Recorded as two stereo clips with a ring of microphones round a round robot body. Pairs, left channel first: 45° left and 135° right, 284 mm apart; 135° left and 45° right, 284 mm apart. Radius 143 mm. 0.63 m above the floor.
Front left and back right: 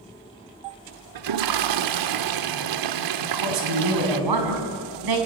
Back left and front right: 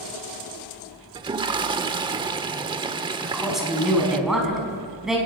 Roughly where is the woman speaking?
Behind right.